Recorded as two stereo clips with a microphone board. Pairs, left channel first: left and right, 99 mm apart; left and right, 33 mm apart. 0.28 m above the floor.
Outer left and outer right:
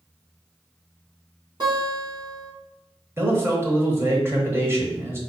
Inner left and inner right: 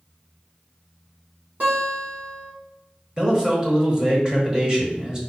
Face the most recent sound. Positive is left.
turn(degrees=-25)  # may be behind; listen again after turning